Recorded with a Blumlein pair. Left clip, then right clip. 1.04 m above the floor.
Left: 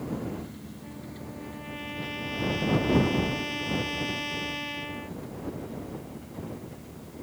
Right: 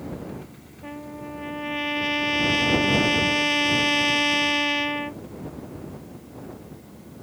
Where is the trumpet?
30° right.